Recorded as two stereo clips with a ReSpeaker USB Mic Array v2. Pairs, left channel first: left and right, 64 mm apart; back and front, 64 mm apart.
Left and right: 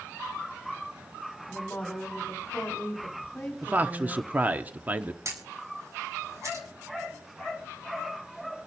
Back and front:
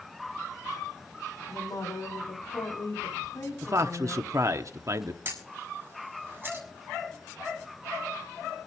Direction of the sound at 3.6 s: 30° right.